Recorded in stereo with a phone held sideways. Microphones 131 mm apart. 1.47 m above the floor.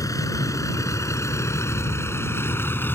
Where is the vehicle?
25° left (ahead or behind); by 3.0 s 15° left (ahead or behind).